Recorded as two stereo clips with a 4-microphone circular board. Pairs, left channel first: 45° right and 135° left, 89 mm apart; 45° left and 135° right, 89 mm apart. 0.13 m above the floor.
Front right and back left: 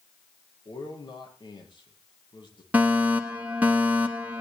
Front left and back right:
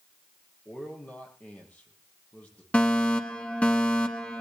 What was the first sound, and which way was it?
A man speaking, 30° right.